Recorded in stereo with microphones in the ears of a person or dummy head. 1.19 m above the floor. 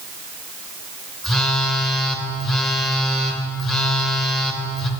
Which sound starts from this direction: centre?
A phone buzzing, at 1.2 s.